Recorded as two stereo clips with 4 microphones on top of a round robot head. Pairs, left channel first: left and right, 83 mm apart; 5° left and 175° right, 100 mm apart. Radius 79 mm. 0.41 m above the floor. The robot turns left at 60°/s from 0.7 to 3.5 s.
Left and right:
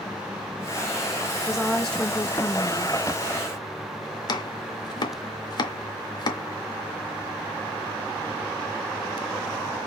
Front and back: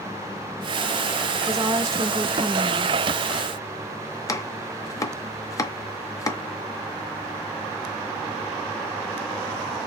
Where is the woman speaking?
165° right, 0.8 m; by 3.0 s 105° left, 0.8 m.